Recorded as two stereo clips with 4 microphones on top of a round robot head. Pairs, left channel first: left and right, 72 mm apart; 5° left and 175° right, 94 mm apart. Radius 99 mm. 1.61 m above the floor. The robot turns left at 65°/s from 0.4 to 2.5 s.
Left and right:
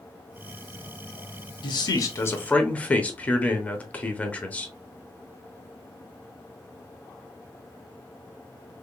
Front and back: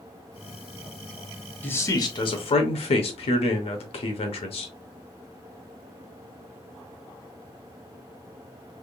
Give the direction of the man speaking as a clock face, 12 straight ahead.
9 o'clock.